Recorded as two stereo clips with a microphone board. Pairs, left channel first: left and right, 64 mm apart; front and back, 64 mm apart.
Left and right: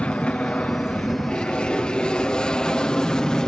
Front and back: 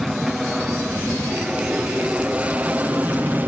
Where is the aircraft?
100° left; by 3.5 s 160° left.